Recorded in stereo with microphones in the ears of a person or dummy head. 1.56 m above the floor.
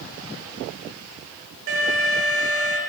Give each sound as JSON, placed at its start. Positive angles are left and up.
{"t": 1.7, "sound": "an alarm", "side_deg": -70, "distance_m": 3.0}